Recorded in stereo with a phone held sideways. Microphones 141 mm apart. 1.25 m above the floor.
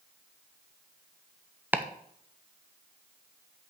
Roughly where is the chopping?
Centre.